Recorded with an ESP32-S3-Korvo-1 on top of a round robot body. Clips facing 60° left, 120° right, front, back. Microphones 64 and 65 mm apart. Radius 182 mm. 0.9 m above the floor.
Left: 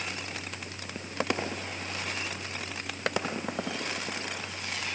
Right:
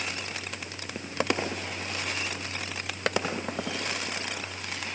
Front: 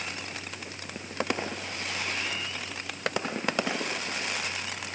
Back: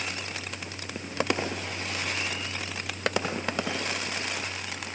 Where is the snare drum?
No snare drum in this recording.